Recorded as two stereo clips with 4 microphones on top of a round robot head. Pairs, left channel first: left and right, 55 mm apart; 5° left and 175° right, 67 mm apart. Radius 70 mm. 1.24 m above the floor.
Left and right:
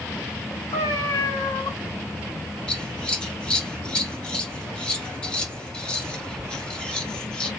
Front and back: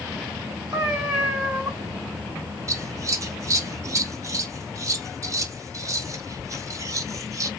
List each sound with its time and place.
0.7 s a cat meowing: 100° left, 2.5 m
2.7 s scissors: 160° left, 0.9 m